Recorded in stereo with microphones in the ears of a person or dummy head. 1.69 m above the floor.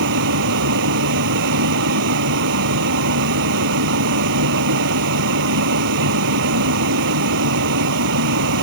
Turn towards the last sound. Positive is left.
turn(degrees=-65)  # may be behind; listen again after turning